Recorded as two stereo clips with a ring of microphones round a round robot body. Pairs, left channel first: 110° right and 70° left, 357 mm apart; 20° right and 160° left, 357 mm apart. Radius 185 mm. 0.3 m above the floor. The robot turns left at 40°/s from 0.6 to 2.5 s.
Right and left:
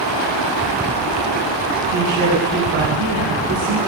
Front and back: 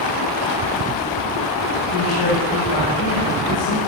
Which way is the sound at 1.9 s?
35° left.